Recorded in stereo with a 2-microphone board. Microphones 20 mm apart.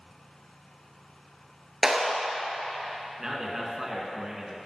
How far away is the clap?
About 1.8 m.